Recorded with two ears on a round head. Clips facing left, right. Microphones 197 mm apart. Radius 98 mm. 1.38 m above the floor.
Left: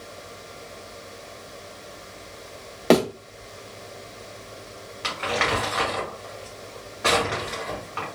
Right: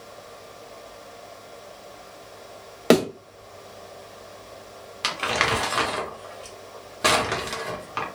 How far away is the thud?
About 0.8 m.